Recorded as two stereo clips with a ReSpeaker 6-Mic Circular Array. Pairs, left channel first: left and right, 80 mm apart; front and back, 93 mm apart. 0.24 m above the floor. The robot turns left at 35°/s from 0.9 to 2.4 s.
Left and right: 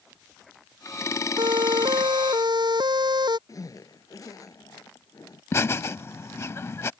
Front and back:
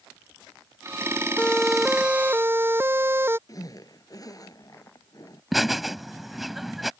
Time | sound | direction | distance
1.4 | a siren | 75° right | ?
3.5 | a zipper | 45° left | ?
5.5 | laughter | 90° left | ?